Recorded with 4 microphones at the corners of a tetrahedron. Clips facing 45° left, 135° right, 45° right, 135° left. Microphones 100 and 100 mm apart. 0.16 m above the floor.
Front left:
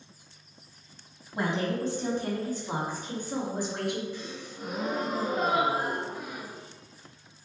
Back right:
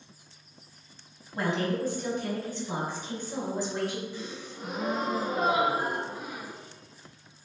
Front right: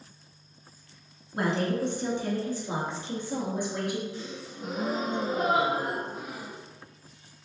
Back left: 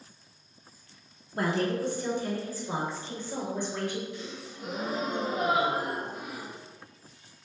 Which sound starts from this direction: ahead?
A woman speaking, at 1.3 s.